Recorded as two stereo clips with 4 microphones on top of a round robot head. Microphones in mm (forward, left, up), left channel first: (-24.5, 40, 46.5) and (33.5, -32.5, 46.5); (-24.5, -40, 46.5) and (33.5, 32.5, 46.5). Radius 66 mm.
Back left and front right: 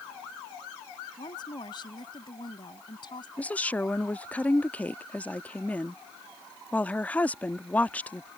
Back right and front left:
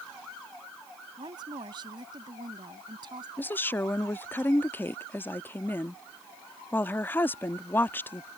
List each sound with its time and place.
1.2 s a woman speaking: 95° left
3.4 s a woman speaking: 175° right